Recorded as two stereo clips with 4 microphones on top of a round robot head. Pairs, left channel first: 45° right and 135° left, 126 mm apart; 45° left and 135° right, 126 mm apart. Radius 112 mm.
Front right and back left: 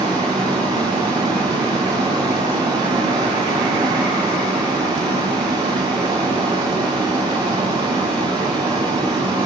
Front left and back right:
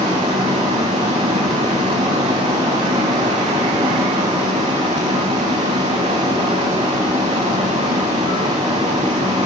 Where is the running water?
175° right, 4.5 m.